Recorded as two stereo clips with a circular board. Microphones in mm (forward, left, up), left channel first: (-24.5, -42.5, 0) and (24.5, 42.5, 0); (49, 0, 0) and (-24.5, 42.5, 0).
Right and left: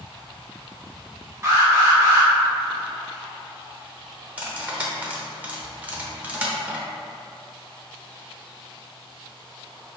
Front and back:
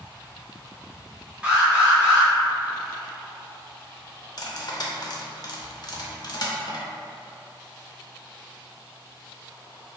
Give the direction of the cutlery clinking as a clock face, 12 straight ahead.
12 o'clock.